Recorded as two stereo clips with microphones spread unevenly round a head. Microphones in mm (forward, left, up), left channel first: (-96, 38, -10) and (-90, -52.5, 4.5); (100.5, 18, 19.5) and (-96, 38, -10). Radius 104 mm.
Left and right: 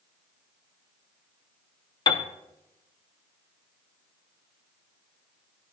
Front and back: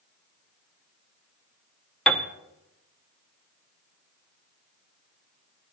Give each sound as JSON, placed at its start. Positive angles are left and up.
{"t": 2.1, "sound": "a piano", "azimuth_deg": 85, "distance_m": 0.6}